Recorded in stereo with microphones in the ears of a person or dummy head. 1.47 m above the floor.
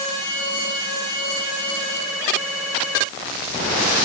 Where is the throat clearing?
No throat clearing in this recording.